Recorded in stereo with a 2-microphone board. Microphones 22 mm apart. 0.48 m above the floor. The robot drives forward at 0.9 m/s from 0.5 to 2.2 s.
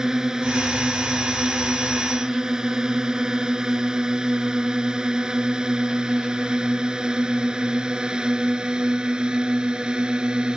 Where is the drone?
25° right (ahead or behind); by 10.6 s 40° right (ahead or behind).